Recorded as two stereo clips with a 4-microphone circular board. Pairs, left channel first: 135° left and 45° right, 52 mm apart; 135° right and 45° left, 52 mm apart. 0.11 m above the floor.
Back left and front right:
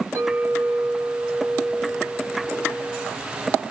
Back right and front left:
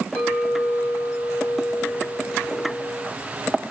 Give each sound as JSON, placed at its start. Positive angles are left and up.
{"t": 0.1, "sound": "a clink", "azimuth_deg": -70, "distance_m": 4.5}